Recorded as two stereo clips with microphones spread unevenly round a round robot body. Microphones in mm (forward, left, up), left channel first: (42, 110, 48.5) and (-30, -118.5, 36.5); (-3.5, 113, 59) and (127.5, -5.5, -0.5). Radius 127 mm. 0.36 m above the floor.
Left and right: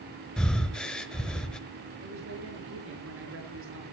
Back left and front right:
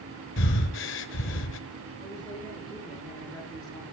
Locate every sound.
0.4 s breathing: 160° left, 1.1 m
2.0 s a woman speaking: 140° right, 6 m